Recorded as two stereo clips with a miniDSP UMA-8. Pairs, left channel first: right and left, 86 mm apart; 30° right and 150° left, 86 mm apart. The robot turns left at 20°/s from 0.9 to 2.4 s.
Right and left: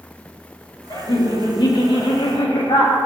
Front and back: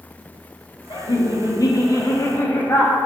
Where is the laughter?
55° right, 2.5 m; by 3.0 s 85° right, 2.5 m.